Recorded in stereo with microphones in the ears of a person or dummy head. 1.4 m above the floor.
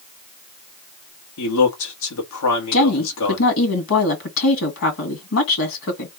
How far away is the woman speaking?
About 1.9 m.